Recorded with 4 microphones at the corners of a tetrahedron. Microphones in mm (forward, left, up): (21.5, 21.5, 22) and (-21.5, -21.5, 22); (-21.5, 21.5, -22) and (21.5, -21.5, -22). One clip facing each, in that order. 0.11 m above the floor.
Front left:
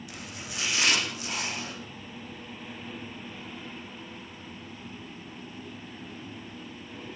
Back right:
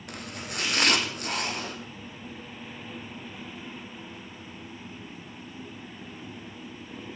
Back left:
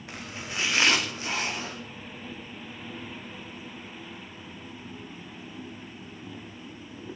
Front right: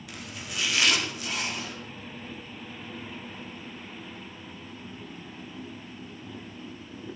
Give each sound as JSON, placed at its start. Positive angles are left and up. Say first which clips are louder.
{"t": 0.1, "sound": "chopping", "louder": "back right 3 dB, back left 3 dB", "azimuth_deg": -170, "distance_m": 5.0}